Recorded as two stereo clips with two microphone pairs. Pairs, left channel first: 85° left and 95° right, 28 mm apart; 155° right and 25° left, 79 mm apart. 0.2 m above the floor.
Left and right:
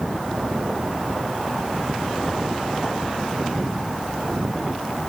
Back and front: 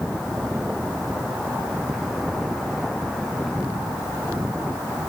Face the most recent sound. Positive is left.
No sound to turn to.